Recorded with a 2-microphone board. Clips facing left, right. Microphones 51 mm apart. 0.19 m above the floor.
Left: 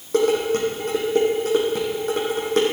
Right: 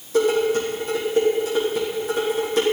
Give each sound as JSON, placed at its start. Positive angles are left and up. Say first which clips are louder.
{"t": 0.1, "sound": "dishes clattering", "louder": "even", "side_deg": 55, "distance_m": 6.5}